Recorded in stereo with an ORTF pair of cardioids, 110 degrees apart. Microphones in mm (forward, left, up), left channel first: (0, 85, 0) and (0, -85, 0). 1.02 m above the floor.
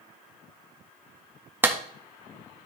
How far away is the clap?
About 1.4 m.